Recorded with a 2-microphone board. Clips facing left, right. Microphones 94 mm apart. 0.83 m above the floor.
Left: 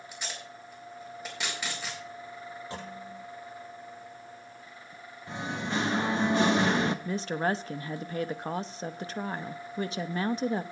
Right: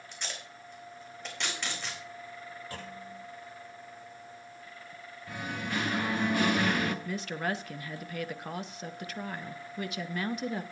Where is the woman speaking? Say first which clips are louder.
Left 4 dB; 30° left (ahead or behind), 0.6 m.